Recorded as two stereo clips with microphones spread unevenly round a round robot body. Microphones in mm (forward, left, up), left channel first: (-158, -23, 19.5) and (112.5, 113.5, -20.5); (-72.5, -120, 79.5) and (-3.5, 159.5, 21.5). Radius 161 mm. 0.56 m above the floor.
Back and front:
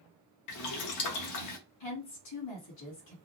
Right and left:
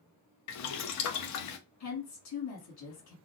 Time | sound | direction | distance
0.5 | boiling | 130° right | 0.6 m
1.8 | a woman speaking | 125° right | 1.9 m